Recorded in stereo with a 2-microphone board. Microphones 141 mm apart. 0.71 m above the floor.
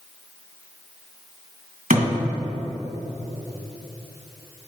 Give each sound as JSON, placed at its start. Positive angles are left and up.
{"t": 1.9, "sound": "a thud", "side_deg": -75, "distance_m": 1.9}